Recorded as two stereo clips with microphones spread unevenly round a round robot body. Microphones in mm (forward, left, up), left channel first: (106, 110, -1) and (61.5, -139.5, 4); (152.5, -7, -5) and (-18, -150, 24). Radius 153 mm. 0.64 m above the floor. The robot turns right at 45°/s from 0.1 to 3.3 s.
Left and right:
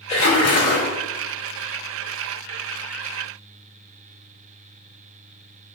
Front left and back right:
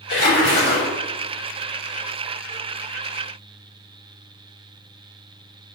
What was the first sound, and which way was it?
A splash, 50° left.